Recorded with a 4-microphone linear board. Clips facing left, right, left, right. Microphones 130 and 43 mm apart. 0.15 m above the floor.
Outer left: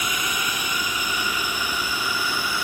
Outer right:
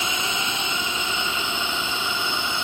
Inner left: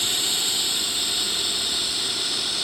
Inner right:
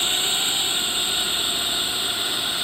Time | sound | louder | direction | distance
0.0 | a drone | even, inner right 3 dB | 25° right (ahead or behind) | ?